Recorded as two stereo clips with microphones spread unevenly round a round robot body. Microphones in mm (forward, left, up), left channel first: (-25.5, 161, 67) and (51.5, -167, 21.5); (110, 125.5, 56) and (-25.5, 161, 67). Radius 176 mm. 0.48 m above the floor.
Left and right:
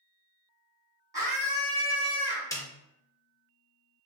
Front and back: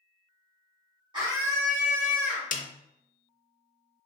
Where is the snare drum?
20° left, 0.5 m.